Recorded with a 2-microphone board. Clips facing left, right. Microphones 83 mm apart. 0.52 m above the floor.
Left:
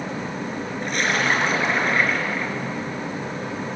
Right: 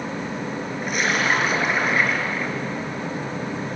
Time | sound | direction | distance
0.8 | a splash | 5° right (ahead or behind) | 4 m